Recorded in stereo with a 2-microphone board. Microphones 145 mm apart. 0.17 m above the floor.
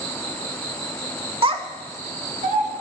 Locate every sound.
1.4 s a child speaking: 40° right (ahead or behind), 0.8 m; by 2.7 s 65° right (ahead or behind), 1.4 m